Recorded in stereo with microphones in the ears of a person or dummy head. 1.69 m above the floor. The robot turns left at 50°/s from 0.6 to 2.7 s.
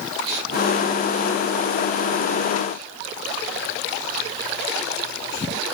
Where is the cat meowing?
No cat meowing in this recording.